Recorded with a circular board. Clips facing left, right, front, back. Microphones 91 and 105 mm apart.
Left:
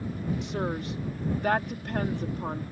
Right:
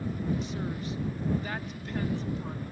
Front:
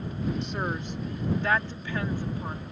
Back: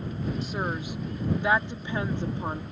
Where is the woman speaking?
95° left; by 2.6 s 125° left.